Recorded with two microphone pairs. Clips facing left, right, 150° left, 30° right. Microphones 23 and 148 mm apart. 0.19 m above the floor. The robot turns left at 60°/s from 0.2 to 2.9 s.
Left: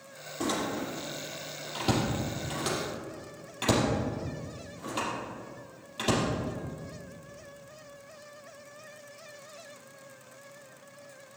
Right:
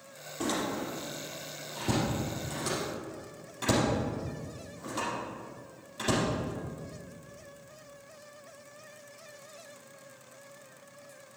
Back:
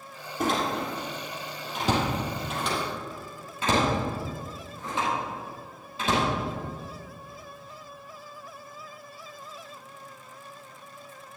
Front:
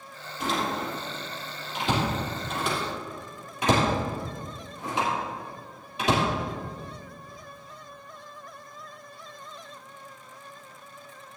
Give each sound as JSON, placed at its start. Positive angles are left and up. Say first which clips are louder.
{"t": 0.4, "sound": "a door slam", "louder": "left 1 dB, back 2 dB", "azimuth_deg": -165, "distance_m": 3.5}